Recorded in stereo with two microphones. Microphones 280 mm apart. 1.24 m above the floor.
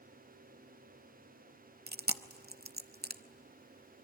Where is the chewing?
35° right (ahead or behind), 0.6 m.